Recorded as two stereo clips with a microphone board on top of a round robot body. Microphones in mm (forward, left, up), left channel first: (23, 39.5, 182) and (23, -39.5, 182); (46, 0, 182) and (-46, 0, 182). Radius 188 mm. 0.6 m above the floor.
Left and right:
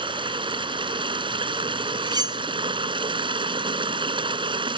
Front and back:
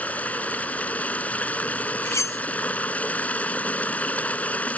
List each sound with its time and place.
0.0 s running water: 75° right
2.0 s cutlery clinking: 60° right